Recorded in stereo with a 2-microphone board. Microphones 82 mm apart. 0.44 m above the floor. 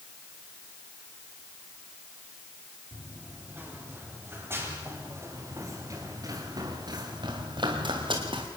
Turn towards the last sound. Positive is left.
turn(degrees=-80)